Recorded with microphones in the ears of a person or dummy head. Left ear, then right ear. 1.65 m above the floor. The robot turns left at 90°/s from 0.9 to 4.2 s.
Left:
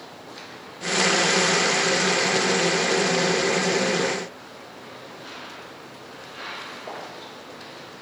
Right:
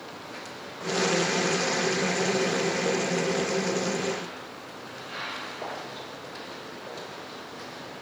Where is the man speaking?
I don't hear a man speaking.